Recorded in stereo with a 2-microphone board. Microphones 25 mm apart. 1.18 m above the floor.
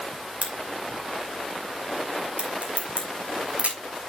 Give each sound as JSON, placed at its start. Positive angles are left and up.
{"t": 0.4, "sound": "a crack", "side_deg": -60, "distance_m": 3.0}